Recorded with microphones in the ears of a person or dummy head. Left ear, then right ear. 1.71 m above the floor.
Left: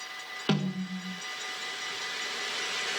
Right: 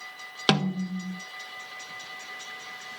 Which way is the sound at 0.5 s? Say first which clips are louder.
Right 8 dB; 40° right (ahead or behind).